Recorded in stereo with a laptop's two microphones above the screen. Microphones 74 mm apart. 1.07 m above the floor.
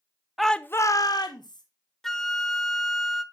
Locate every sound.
0.4 s a shout: 5° right (ahead or behind), 0.8 m; by 1.6 s 65° left (ahead or behind), 1.5 m
2.0 s a flute: 5° left (ahead or behind), 0.8 m